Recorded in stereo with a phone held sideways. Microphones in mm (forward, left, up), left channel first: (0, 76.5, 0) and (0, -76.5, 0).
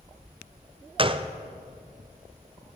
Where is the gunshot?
35° right (ahead or behind), 0.5 m.